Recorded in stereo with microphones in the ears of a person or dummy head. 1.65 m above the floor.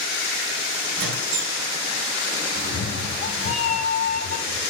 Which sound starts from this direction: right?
A squeak, at 0.9 s.